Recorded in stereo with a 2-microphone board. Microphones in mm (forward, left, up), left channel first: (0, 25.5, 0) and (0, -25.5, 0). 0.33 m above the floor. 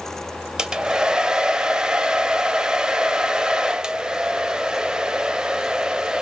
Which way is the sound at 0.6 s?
15° right (ahead or behind).